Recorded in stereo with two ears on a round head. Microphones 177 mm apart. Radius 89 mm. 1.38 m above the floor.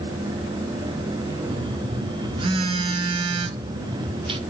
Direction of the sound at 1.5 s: 30° right (ahead or behind).